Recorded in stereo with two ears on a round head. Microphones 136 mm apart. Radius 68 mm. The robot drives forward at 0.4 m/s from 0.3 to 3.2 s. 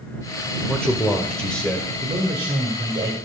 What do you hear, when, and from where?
0.7 s a man speaking: 5° left (ahead or behind), 0.9 m
2.0 s a man speaking: 35° right (ahead or behind), 1.5 m; by 3.1 s 30° right (ahead or behind), 1.8 m